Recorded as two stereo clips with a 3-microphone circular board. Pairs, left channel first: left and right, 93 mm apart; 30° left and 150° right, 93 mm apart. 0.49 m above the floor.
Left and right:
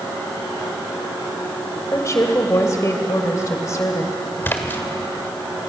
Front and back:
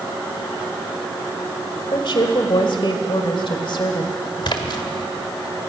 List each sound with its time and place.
1.9 s a woman speaking: 40° left, 1.6 m
4.4 s a splash: 25° left, 1.7 m